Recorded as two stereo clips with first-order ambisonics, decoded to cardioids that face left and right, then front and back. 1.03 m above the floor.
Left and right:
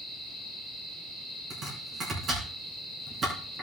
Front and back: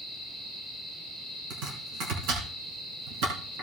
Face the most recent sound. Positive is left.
turn(degrees=-160)